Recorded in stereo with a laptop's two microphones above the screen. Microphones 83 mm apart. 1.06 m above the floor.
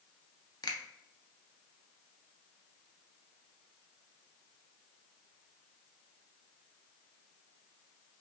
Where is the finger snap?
50° left (ahead or behind), 0.5 m.